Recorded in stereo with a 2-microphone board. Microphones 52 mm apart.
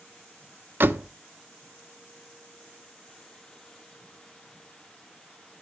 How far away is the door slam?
About 0.9 m.